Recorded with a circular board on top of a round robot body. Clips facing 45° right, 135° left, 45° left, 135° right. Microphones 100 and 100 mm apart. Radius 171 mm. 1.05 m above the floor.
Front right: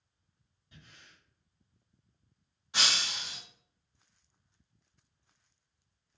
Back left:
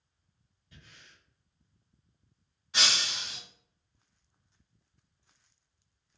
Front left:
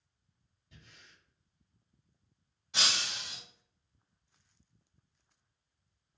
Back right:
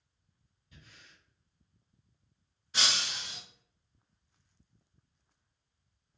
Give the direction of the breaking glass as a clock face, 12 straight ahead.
11 o'clock.